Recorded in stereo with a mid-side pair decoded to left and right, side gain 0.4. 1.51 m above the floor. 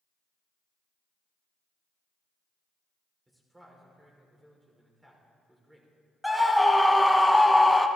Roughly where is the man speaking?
Ahead.